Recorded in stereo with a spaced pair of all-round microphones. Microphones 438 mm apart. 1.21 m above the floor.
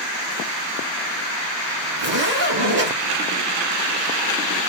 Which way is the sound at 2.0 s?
70° right (ahead or behind).